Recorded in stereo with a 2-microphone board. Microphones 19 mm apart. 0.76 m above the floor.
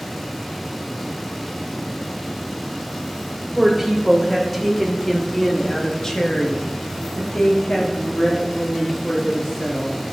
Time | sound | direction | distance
3.5 | a woman speaking | 10° right (ahead or behind) | 2.5 m